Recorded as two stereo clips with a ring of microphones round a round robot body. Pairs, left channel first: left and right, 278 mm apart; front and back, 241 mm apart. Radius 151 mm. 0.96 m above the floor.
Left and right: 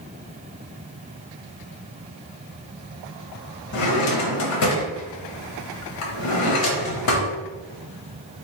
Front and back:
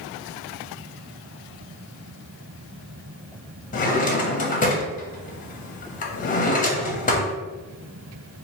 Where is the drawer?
60° left, 0.8 m.